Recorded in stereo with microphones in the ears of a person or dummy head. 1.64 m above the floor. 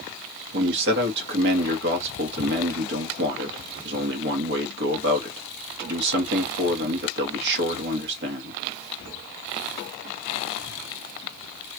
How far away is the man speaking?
About 1.4 m.